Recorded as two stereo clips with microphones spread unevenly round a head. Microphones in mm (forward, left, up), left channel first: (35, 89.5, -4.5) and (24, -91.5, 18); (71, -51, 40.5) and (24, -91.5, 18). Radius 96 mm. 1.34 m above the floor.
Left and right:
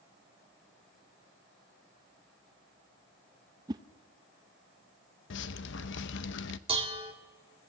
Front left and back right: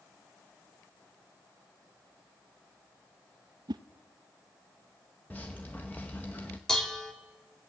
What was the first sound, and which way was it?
A whoosh, 150° right.